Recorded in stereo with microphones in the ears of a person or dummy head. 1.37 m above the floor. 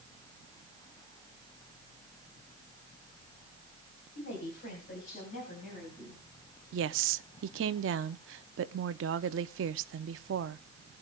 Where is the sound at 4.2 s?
45° left (ahead or behind), 4 m; by 6.2 s 35° left (ahead or behind), 6.5 m.